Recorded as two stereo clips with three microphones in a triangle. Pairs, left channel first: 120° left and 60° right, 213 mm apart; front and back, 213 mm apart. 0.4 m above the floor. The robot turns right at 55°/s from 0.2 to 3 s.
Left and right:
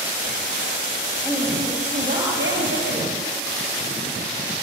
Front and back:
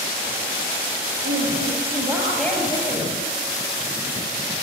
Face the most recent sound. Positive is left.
turn(degrees=-55)